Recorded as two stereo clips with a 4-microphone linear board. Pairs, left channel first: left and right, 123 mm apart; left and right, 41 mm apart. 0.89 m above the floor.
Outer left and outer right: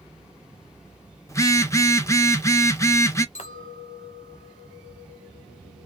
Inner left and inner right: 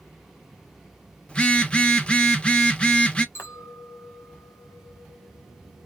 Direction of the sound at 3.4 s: 70° left (ahead or behind).